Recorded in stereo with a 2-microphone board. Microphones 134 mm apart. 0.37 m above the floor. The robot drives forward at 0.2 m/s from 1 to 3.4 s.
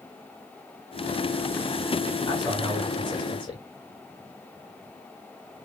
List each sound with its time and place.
2.3 s a man speaking: 35° left (ahead or behind), 1.6 m